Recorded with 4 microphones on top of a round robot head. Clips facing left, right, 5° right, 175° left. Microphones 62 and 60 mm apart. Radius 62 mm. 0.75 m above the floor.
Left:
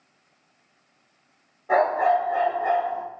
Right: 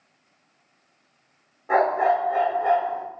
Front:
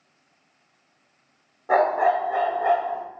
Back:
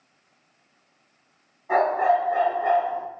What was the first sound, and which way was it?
A dog barking, 15° right.